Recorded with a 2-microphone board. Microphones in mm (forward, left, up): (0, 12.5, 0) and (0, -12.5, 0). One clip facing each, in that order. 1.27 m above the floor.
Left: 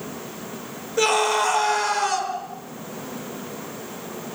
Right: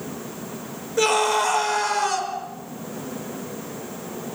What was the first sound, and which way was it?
A scream, centre (ahead or behind).